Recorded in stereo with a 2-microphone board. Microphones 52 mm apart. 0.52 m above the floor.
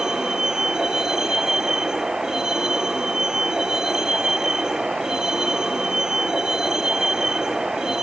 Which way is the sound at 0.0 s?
10° right (ahead or behind).